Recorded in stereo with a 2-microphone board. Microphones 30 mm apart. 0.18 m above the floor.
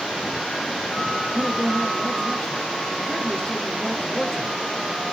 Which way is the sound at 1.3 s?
40° left (ahead or behind).